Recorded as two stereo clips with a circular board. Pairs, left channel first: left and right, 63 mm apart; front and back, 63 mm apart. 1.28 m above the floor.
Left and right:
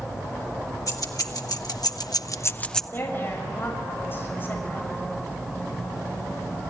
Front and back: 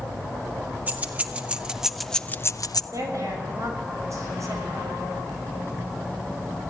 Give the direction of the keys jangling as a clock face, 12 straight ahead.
8 o'clock.